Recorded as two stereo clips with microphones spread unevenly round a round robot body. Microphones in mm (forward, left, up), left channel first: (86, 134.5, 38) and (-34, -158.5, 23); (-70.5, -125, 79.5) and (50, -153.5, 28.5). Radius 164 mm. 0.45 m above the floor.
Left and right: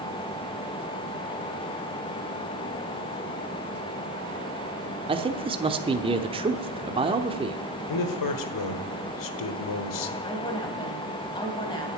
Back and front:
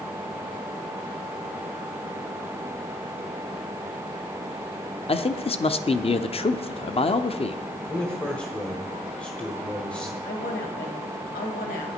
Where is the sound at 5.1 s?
155° right, 0.8 m.